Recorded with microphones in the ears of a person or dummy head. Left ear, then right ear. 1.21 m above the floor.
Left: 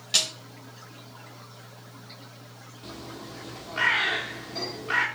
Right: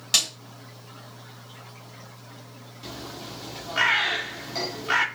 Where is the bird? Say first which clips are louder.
Right 3 dB; 20° right (ahead or behind), 1.6 m.